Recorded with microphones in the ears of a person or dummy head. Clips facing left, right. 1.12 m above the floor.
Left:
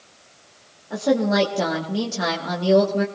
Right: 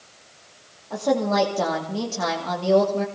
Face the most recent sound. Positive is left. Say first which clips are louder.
# left 2 dB
turn(degrees=15)  # may be behind; listen again after turning